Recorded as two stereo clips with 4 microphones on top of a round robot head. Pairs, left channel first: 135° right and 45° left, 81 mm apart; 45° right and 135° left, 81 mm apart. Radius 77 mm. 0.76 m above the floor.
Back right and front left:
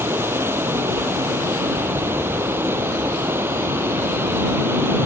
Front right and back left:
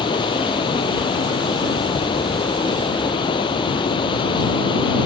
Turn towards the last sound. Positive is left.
turn(degrees=-20)